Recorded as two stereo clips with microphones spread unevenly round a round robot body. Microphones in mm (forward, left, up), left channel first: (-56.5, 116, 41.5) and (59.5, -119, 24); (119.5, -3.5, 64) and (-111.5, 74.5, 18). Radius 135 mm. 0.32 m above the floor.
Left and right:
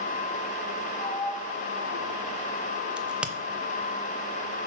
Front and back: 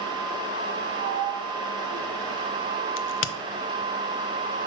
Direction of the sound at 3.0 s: 20° left.